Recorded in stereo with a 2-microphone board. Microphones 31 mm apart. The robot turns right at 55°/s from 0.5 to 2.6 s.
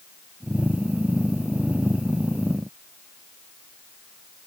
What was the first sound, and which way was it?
Only background noise.